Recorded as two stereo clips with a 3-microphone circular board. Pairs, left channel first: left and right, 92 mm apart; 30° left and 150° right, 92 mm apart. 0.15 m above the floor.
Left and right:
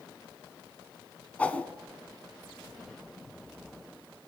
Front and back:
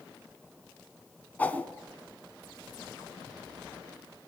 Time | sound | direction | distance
1.4 | a whoosh | 55° left | 0.8 m